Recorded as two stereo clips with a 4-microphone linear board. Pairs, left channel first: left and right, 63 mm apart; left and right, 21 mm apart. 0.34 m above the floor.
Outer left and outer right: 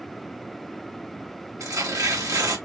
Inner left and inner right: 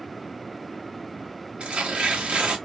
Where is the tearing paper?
60° right (ahead or behind), 1.0 m.